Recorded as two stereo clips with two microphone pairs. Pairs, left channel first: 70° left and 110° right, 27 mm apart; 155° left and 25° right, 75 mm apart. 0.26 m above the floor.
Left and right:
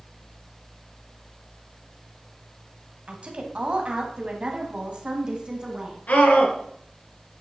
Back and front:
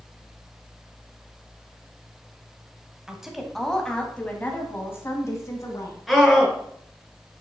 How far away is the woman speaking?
About 1.8 m.